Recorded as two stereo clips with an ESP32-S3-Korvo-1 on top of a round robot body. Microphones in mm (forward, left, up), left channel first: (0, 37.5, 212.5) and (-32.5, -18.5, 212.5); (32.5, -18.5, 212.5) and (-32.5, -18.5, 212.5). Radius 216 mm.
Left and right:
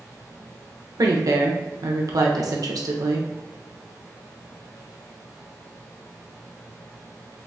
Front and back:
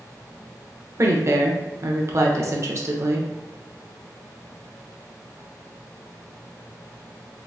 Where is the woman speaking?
140° right, 1.1 m.